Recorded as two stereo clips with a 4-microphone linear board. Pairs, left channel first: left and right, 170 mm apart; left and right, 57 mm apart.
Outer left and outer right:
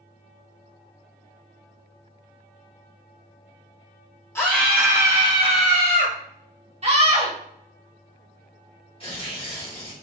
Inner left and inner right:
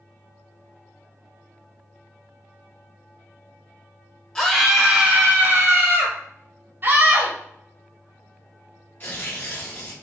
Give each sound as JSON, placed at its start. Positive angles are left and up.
{"t": 4.3, "sound": "a scream", "side_deg": 15, "distance_m": 1.1}
{"t": 6.8, "sound": "a scream", "side_deg": -40, "distance_m": 1.4}
{"t": 9.0, "sound": "tearing paper", "side_deg": 35, "distance_m": 1.6}